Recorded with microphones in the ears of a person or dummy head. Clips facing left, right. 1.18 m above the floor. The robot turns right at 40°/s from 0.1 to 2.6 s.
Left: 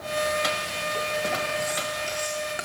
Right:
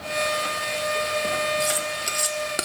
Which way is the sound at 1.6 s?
35° right (ahead or behind).